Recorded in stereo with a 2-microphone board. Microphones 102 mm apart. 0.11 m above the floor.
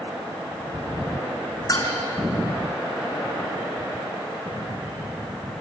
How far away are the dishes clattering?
About 5 m.